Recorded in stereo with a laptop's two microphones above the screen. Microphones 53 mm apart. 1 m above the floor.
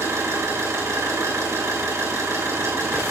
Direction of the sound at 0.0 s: 65° right (ahead or behind).